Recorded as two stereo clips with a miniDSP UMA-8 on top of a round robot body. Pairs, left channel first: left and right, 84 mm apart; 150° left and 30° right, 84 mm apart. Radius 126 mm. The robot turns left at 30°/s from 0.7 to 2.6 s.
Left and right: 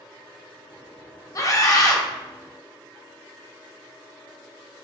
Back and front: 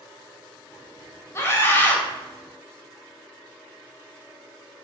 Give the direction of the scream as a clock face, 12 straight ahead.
8 o'clock.